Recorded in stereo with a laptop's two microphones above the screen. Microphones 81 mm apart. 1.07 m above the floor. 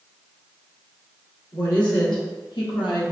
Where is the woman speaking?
75° left (ahead or behind), 1.6 m; by 3.1 s 85° left, 0.9 m.